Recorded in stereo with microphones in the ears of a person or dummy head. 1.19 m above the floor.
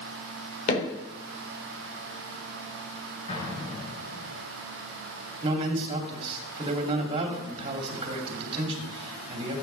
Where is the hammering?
35° left (ahead or behind), 3.5 m.